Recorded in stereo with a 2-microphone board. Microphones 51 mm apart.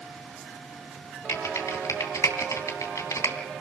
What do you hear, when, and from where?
1.3 s typing on a keyboard: 75° left (ahead or behind), 2.5 m